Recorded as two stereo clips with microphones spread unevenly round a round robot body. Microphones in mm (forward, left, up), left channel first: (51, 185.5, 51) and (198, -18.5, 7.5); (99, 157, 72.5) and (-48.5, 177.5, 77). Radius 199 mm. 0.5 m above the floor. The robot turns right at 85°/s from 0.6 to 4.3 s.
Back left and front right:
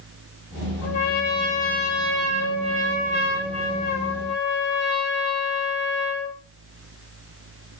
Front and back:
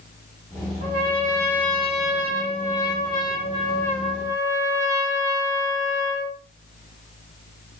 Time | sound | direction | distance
0.8 | a trumpet | 165° left | 3 m